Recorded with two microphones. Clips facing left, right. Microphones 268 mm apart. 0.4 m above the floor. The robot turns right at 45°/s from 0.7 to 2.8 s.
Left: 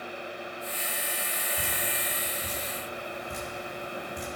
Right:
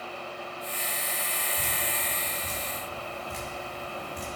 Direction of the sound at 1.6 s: 60° left (ahead or behind).